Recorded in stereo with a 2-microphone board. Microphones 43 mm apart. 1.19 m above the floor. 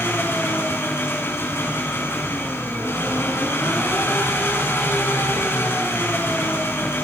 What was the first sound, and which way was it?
An engine running, 75° left (ahead or behind).